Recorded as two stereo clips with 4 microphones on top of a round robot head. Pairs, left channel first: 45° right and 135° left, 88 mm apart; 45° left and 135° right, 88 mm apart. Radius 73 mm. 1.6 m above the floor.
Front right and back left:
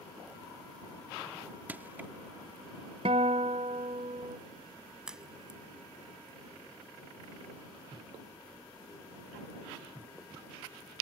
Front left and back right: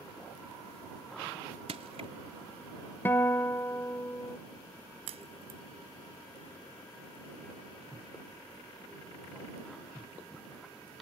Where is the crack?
140° right.